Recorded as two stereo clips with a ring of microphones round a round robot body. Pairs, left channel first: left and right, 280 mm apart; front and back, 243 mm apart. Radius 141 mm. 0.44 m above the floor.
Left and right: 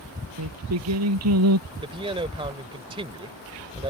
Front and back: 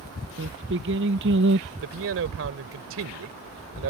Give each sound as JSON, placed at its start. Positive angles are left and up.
{"t": 0.4, "sound": "singing", "azimuth_deg": -125}
{"t": 1.8, "sound": "a man speaking", "azimuth_deg": -160}